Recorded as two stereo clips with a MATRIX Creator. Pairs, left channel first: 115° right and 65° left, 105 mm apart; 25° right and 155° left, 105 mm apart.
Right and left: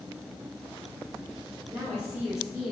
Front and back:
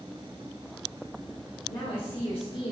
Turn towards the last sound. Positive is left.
turn(degrees=0)